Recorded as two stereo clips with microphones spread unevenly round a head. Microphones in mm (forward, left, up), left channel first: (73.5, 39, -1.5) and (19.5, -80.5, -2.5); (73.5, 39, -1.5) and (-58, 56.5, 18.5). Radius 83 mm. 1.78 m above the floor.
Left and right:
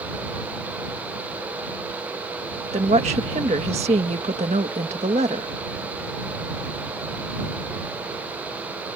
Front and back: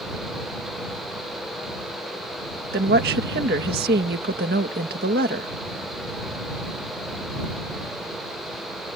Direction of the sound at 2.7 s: 170° right.